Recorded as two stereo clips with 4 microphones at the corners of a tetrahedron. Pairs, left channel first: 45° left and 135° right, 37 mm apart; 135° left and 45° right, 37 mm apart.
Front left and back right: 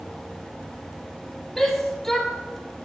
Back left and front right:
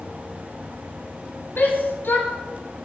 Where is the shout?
130° left, 4 m.